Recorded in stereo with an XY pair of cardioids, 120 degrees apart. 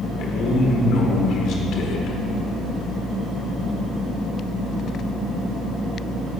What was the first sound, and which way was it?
A man speaking, 70° left.